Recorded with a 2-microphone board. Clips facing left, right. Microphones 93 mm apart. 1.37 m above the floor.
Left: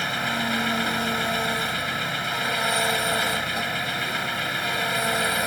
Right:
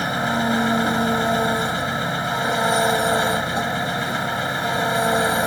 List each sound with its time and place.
0.0 s an engine running: 30° right (ahead or behind)